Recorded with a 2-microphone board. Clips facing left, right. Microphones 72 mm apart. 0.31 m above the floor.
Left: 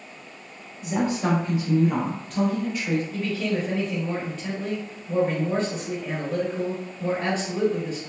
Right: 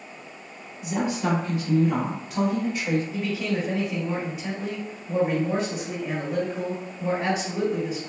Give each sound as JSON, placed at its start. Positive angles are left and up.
{"t": 0.8, "sound": "a woman speaking", "side_deg": 40, "distance_m": 1.2}
{"t": 3.1, "sound": "a man speaking", "side_deg": -10, "distance_m": 0.9}